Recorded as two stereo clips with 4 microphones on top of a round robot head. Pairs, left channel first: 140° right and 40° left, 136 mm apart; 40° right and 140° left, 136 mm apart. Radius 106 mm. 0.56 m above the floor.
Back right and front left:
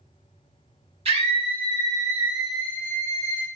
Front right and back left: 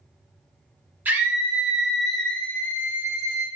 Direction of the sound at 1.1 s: 65° left.